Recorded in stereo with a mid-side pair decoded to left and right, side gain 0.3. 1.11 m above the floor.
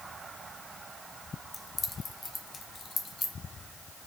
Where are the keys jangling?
35° left, 0.6 m; by 3.3 s 60° left, 1.7 m.